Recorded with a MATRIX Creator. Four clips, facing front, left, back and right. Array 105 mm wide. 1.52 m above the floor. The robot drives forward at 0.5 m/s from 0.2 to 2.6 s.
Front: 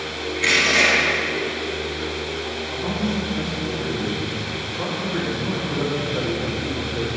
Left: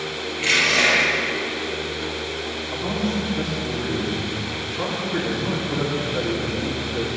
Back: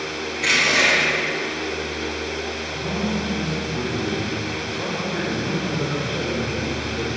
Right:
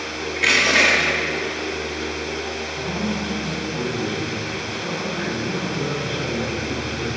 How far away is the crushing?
About 3 m.